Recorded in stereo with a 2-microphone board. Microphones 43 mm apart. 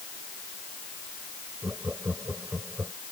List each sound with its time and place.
1.6 s laughter: 60° right (ahead or behind)